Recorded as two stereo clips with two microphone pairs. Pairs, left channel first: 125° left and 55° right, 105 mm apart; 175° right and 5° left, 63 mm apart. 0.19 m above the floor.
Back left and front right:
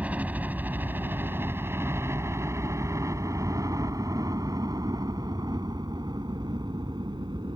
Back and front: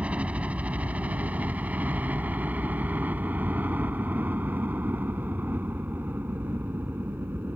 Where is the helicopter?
10° right; by 7.6 s 40° right.